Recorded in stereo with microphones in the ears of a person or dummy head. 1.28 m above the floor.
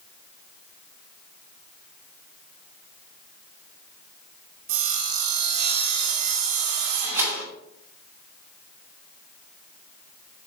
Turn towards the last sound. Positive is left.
turn(degrees=-10)  # may be behind; listen again after turning